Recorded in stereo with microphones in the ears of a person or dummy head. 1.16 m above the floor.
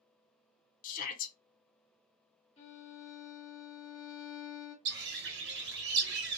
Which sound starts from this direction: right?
A bird, at 4.8 s.